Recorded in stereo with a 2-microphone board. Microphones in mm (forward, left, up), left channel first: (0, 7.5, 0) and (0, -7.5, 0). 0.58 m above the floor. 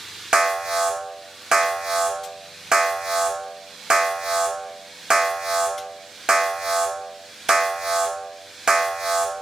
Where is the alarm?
50° right (ahead or behind), 1.9 m.